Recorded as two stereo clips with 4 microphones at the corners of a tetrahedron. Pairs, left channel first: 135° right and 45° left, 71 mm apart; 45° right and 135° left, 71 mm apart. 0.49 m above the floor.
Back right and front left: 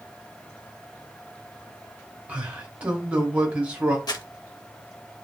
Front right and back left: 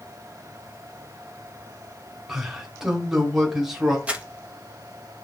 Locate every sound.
2.3 s a man speaking: 65° left, 0.9 m
4.1 s crumpling: 155° right, 0.5 m